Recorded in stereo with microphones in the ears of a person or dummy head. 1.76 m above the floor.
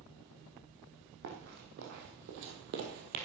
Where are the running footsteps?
50° right (ahead or behind), 3.5 m; by 3.2 s 45° right (ahead or behind), 2.5 m.